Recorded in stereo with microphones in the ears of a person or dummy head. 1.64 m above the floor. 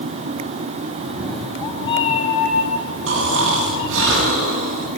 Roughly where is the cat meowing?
Centre.